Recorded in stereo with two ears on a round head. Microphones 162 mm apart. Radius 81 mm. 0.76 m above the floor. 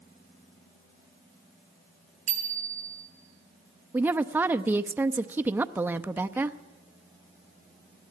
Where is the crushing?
No crushing in this recording.